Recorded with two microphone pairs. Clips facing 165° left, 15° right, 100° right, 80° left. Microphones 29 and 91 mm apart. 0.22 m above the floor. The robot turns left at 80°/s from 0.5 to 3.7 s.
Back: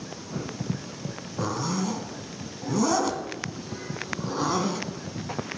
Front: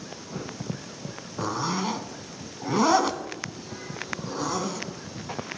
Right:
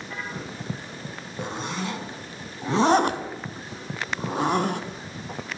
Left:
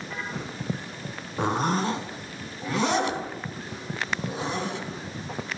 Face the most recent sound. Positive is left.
turn(degrees=-125)